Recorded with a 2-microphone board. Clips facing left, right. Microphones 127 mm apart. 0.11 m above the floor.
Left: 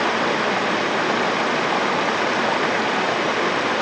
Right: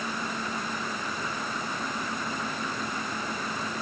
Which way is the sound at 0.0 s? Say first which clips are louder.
Left 13 dB; 80° left.